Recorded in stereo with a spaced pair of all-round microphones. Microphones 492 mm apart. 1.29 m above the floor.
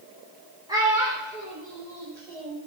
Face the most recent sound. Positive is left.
turn(degrees=5)  # may be behind; listen again after turning